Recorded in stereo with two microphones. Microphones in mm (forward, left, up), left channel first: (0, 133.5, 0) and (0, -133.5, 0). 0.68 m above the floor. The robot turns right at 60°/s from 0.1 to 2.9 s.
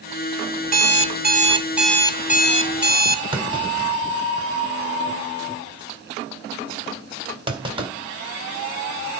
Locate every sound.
0.6 s an alarm clock: 75° right, 0.7 m; by 3.2 s 65° left, 0.7 m
3.3 s a clunk: 20° right (ahead or behind), 1.9 m